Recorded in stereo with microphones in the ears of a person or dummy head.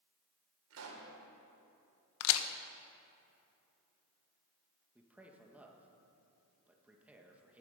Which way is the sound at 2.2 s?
80° left.